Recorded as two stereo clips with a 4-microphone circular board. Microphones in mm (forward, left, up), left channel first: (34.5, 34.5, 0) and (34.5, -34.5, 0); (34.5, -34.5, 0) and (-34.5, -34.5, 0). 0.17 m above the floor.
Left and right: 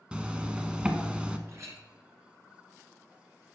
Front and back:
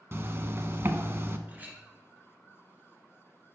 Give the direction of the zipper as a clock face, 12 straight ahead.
5 o'clock.